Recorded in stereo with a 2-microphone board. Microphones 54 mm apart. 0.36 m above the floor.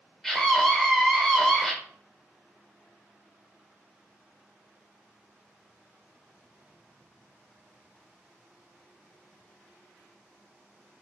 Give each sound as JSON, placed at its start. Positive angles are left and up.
{"t": 0.2, "sound": "a scream", "side_deg": 5, "distance_m": 0.9}